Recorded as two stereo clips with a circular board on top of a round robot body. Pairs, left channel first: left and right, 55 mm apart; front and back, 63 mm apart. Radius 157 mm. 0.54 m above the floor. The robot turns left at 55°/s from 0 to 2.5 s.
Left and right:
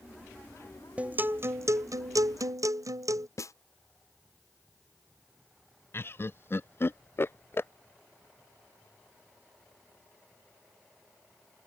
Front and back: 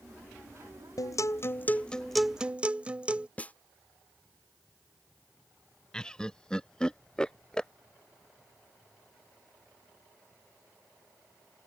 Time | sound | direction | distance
1.0 | a guitar | 25° right | ?
3.4 | a snare drum | 65° left | ?
5.9 | laughter | 70° left | ?